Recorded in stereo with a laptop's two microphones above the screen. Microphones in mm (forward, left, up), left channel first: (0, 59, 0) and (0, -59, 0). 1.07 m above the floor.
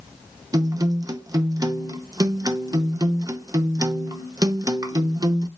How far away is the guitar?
About 0.6 m.